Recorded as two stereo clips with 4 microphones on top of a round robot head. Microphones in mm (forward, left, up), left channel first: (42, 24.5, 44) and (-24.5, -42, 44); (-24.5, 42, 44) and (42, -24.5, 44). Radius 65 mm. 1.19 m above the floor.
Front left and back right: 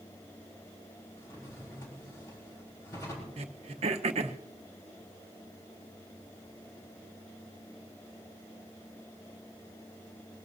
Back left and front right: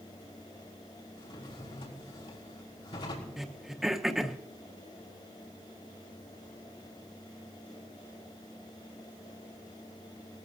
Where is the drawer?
105° left, 4 m.